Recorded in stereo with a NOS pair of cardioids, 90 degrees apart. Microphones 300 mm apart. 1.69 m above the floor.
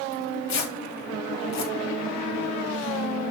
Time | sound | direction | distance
0.1 | tearing paper | 65° left | 2 m